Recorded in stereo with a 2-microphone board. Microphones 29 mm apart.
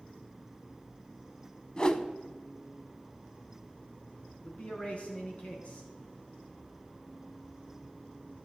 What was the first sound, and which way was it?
A whoosh, 30° left (ahead or behind).